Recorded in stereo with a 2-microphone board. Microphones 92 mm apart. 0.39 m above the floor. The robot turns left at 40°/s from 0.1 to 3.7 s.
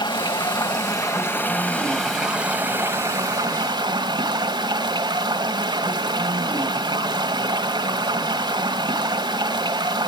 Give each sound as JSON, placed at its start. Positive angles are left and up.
{"t": 0.0, "sound": "running water", "azimuth_deg": 80, "distance_m": 1.9}